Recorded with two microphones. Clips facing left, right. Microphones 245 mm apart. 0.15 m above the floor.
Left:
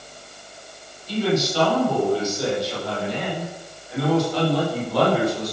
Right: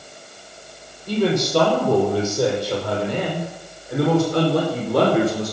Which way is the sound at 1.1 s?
55° right (ahead or behind).